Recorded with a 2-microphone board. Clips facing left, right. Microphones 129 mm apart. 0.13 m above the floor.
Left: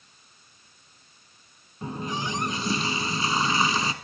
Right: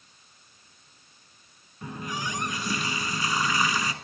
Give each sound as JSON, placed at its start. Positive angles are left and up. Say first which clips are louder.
{"t": 1.8, "sound": "a running tap", "louder": "left 3 dB", "side_deg": 30, "distance_m": 1.0}